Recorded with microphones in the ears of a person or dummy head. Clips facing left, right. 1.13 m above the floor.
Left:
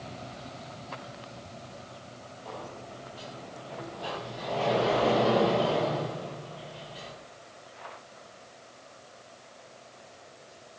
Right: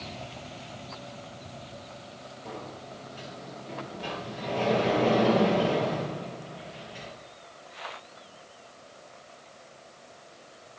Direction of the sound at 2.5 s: 25° right (ahead or behind).